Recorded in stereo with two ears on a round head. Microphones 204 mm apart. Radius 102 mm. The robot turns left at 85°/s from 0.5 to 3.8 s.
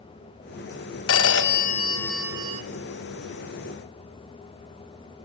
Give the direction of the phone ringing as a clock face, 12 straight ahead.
9 o'clock.